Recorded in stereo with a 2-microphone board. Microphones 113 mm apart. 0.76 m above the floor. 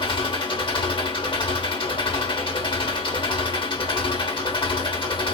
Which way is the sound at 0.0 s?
50° left (ahead or behind).